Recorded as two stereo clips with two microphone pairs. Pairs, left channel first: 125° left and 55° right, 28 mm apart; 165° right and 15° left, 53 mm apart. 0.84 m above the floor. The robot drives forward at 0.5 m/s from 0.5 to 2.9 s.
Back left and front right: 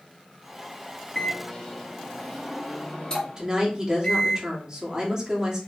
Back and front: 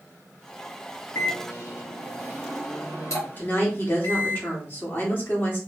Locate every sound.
1.1 s a microwave: 165° right, 0.8 m; by 4.4 s 175° right, 1.7 m
3.4 s a woman speaking: 115° right, 1.6 m